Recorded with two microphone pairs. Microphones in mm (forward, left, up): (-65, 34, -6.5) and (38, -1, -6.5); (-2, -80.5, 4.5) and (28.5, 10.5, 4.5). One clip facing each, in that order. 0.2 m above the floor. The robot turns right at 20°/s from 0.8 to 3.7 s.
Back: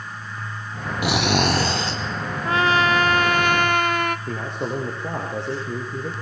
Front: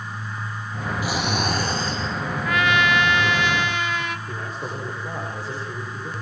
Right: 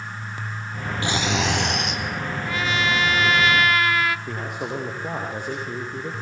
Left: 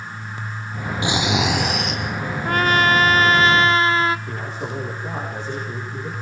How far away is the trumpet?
About 1.1 m.